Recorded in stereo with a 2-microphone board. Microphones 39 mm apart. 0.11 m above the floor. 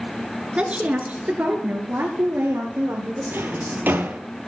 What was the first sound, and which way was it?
A woman speaking, 30° right (ahead or behind).